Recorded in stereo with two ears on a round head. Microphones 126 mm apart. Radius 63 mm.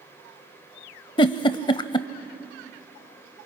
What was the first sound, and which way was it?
A giggle, 30° left (ahead or behind).